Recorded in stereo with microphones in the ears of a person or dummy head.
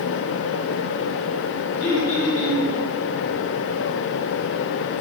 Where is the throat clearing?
40° left (ahead or behind), 1.7 m.